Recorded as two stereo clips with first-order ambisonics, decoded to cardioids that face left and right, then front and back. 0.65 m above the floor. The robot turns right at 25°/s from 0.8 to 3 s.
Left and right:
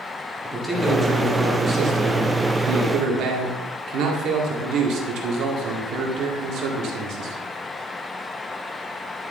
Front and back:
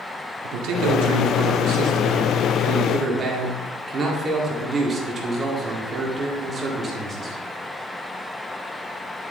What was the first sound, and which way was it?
A man speaking, 170° right.